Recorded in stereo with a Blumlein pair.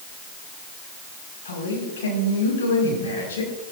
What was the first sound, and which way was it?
A man speaking, 65° left.